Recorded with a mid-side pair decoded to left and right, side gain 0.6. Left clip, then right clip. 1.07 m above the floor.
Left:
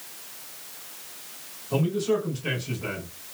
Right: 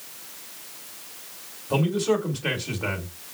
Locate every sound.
1.7 s a man speaking: 55° right, 3 m